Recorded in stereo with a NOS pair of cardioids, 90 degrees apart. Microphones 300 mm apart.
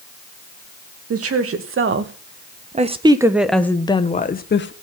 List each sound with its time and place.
1.1 s a woman speaking: 50° right, 2.5 m; by 4.7 s 40° left, 1.7 m